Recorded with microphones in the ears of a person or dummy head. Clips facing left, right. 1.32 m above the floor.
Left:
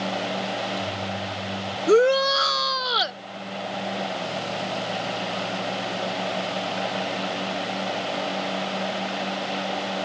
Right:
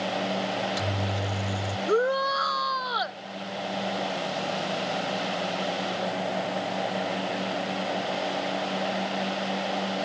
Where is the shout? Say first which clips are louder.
Left 7 dB; 35° left (ahead or behind).